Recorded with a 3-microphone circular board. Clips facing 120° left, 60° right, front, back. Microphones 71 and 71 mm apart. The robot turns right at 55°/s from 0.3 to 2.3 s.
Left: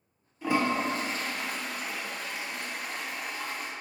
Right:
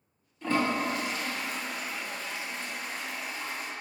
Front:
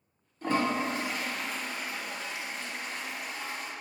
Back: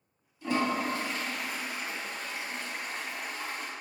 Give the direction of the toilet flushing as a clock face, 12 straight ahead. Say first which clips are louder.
Left 1 dB, front 1 dB; 11 o'clock.